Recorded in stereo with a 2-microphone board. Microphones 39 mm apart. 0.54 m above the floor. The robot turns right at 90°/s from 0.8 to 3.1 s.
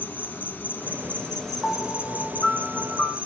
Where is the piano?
25° left, 0.6 m; by 3.2 s 160° left, 0.6 m.